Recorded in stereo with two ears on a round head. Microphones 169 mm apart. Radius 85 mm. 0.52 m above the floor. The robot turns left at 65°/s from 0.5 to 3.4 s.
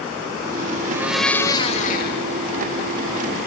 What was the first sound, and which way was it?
A blender, 160° right.